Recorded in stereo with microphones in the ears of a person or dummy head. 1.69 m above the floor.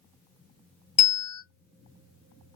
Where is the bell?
45° left (ahead or behind), 1.3 m.